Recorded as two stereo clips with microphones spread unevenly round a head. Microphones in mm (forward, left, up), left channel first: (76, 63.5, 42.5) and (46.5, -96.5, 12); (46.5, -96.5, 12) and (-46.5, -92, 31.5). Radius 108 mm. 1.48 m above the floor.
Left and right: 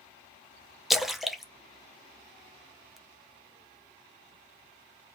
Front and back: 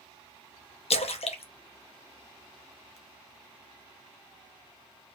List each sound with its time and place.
0.9 s a splash: 5° right, 0.8 m